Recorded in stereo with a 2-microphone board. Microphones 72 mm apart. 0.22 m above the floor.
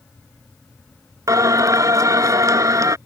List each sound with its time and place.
1.3 s singing: 55° right (ahead or behind)